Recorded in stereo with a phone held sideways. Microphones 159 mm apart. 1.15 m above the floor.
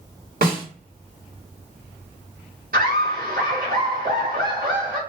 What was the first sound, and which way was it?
A snare drum, 70° right (ahead or behind).